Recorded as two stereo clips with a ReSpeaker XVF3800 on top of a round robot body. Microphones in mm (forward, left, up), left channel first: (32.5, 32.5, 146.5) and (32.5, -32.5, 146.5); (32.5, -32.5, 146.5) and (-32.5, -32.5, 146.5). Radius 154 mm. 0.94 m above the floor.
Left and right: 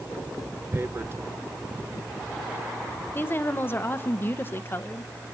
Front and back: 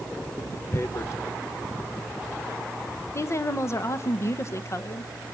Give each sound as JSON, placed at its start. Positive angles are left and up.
{"t": 0.7, "sound": "tearing paper", "azimuth_deg": -40, "distance_m": 1.2}
{"t": 3.1, "sound": "a woman speaking", "azimuth_deg": 35, "distance_m": 1.4}